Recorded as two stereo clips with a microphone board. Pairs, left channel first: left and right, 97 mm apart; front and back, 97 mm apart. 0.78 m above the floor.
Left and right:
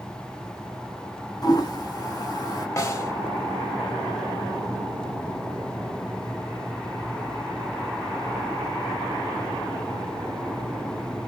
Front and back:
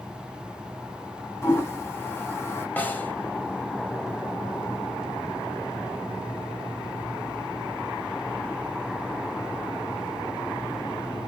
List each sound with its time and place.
1.4 s a toilet flushing: 55° left, 0.9 m
2.8 s a snare drum: 60° left, 0.7 m